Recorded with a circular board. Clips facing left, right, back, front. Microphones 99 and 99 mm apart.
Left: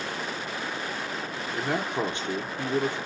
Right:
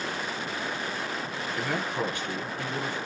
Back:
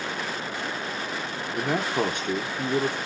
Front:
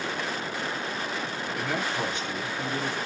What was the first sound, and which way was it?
A man speaking, 155° left.